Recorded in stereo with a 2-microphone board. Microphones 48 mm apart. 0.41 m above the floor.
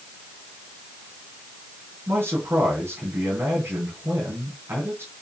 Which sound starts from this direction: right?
A man speaking, at 2.1 s.